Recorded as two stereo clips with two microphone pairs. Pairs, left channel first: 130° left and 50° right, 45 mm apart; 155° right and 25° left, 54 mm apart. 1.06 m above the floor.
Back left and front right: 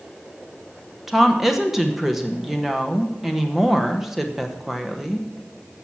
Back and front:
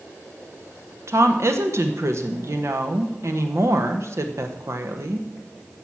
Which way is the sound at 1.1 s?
35° left.